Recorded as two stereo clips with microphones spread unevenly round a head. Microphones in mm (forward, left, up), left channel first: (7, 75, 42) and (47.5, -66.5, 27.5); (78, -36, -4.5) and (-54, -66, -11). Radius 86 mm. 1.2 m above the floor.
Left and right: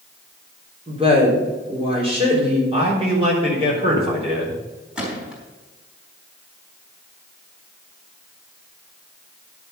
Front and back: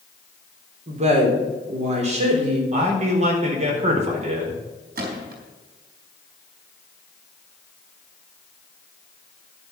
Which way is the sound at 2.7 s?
130° right.